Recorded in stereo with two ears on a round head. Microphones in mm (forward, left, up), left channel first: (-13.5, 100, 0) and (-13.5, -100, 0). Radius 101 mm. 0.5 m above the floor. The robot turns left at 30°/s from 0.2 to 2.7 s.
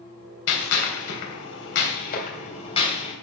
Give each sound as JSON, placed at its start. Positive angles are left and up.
{"t": 0.5, "sound": "a gunshot", "side_deg": 70, "distance_m": 3.0}